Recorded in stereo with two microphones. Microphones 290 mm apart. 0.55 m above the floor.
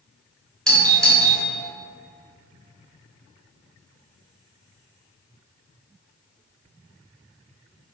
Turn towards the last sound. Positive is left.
turn(degrees=0)  # may be behind; listen again after turning